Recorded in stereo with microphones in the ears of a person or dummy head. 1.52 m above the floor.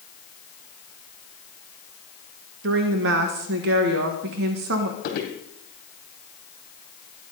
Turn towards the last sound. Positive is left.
turn(degrees=50)  # may be behind; listen again after turning